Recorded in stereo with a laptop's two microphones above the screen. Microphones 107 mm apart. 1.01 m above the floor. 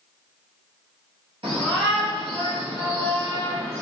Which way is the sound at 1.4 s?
60° right (ahead or behind).